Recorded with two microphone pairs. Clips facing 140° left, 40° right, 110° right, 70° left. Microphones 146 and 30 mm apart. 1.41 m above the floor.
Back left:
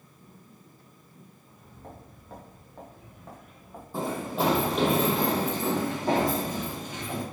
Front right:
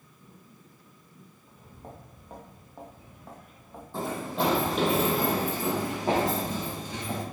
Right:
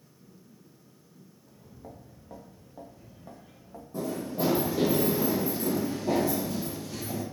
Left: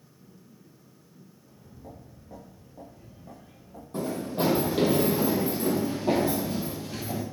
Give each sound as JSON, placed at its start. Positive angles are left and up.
{"t": 1.4, "sound": "footsteps", "azimuth_deg": -105, "distance_m": 3.5}
{"t": 3.9, "sound": "running footsteps", "azimuth_deg": 60, "distance_m": 3.5}